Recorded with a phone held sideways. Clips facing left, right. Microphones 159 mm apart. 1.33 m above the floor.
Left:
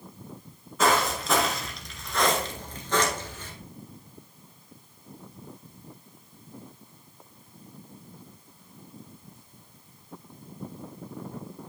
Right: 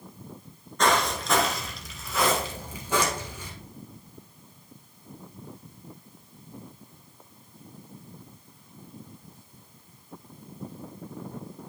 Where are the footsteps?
5° left (ahead or behind), 1.3 m; by 3.5 s 15° right (ahead or behind), 1.5 m.